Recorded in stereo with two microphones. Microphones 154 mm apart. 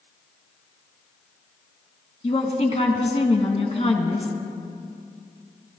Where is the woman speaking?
45° left (ahead or behind), 1.9 m.